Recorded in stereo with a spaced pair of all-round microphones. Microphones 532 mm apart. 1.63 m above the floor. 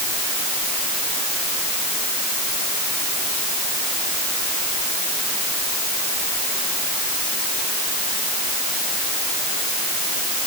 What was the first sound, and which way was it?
Only background noise.